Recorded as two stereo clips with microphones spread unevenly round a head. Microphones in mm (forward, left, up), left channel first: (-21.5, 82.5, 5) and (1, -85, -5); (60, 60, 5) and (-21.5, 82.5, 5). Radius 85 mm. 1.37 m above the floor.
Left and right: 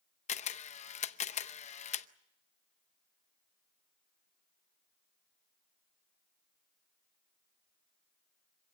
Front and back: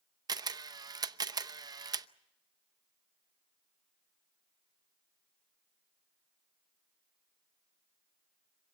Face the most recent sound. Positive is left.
turn(degrees=135)